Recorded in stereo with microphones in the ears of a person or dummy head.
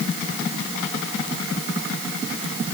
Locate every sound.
Only background noise.